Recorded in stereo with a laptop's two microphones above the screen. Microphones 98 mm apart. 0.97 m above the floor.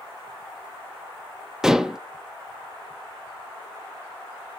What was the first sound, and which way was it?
Dishes clattering, 5° right (ahead or behind).